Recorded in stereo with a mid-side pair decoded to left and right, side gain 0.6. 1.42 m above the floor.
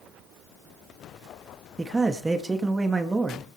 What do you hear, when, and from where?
1.8 s a man speaking: 20° right, 2 m